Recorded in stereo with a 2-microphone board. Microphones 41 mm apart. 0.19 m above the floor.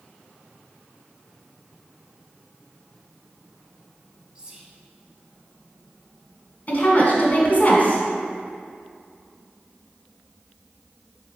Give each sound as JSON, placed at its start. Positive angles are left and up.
{"t": 4.3, "sound": "whispering", "side_deg": -20, "distance_m": 1.1}
{"t": 6.7, "sound": "a woman speaking", "side_deg": 40, "distance_m": 1.6}